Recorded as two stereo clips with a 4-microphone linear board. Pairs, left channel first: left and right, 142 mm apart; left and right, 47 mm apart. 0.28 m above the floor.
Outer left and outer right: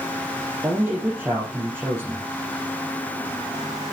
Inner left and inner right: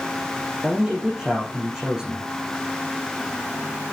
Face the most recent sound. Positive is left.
turn(degrees=-10)  # may be behind; listen again after turning